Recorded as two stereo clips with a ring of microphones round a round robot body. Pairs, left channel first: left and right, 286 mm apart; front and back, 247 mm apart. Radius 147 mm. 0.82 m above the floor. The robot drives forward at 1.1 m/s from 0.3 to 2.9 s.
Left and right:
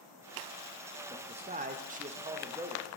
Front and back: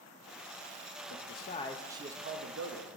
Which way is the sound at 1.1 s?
20° right.